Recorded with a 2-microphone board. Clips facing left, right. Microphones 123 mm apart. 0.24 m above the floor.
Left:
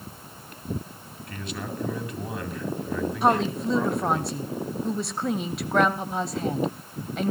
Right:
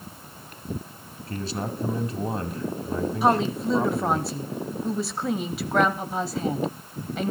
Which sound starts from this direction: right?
A man speaking, at 1.3 s.